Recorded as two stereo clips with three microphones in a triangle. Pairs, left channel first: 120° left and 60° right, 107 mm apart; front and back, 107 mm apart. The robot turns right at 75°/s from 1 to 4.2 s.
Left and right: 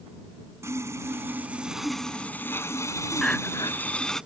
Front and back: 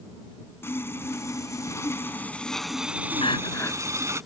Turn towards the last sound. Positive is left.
turn(degrees=105)